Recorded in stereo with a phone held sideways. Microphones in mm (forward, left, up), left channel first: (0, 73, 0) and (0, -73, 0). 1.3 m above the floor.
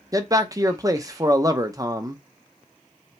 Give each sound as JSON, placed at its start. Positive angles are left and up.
{"t": 0.1, "sound": "a man speaking", "side_deg": -25, "distance_m": 0.7}